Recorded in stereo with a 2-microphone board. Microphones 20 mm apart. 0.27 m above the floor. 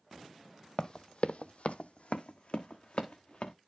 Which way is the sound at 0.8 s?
35° left (ahead or behind).